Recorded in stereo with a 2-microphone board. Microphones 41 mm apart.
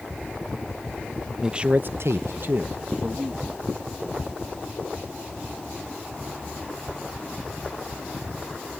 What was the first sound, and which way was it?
A man speaking, 15° right (ahead or behind).